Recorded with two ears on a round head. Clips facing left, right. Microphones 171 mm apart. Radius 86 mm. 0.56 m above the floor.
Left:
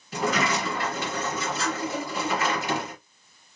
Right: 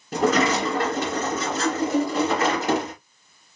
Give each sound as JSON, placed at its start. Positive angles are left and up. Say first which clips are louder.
{"t": 0.1, "sound": "a sliding door", "louder": "right 6 dB", "side_deg": -40, "distance_m": 3.0}